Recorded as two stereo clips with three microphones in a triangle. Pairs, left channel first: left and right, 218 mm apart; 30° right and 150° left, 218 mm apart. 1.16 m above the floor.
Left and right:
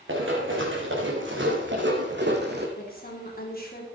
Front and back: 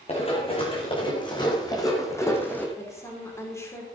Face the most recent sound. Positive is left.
turn(degrees=45)